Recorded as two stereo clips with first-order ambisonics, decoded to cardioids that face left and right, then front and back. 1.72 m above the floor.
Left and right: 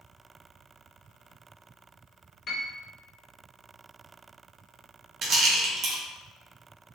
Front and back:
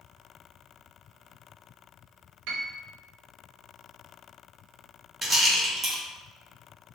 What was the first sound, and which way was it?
A piano, 155° left.